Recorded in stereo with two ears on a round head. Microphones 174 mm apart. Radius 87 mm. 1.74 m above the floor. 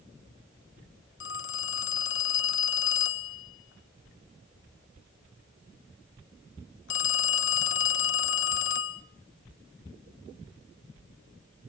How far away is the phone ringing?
About 1.5 m.